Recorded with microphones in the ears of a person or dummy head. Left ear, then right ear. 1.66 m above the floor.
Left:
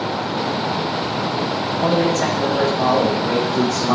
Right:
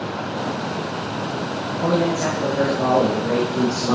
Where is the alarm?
I don't hear an alarm.